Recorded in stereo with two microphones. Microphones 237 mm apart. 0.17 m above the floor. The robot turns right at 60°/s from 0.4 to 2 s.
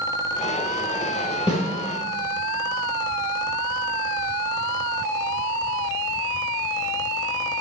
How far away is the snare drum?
About 3.5 m.